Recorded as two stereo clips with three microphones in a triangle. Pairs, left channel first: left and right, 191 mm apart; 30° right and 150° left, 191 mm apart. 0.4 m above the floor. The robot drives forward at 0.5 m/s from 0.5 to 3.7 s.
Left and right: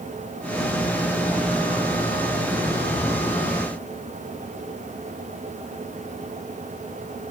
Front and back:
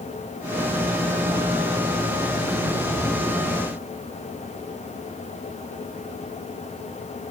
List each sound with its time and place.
Only background noise.